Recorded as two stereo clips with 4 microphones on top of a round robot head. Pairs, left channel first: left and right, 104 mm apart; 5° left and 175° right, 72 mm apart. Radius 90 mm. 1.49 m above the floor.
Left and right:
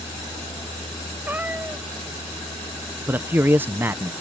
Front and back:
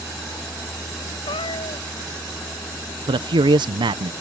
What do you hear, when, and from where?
1.3 s a cat meowing: 15° right
3.1 s a man speaking: 165° right